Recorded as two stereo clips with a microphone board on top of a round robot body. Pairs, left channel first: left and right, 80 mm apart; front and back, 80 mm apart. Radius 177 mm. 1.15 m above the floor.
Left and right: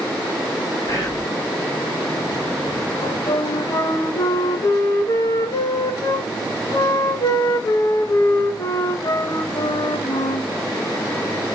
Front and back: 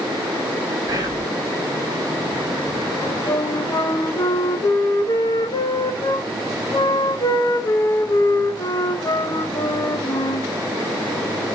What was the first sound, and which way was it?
Whispering, 140° left.